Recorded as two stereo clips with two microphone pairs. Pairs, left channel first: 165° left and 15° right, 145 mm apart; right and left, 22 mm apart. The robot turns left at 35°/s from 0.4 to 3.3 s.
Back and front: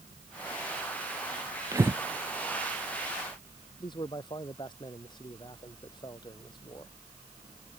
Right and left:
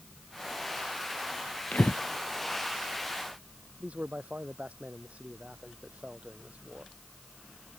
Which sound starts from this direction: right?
Breathing, at 1.7 s.